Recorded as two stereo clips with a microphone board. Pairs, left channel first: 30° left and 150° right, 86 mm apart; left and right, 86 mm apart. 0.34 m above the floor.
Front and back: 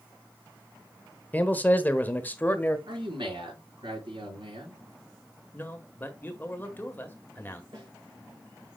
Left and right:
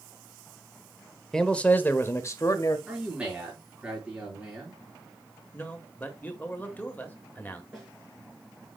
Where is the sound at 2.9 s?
170° right, 6 m.